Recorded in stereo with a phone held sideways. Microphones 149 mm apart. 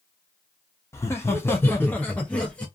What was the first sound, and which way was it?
Laughter, 20° left (ahead or behind).